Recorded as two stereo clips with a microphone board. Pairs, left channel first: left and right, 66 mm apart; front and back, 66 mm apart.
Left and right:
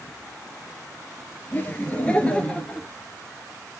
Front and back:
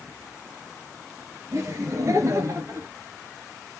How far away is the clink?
I don't hear a clink.